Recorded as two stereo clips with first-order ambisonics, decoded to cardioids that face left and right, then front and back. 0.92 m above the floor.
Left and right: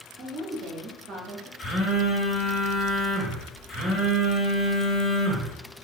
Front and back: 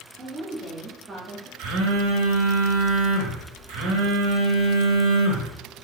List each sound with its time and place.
0.2 s a woman speaking: 110° right, 1.2 m
1.6 s a phone buzzing: 160° left, 0.8 m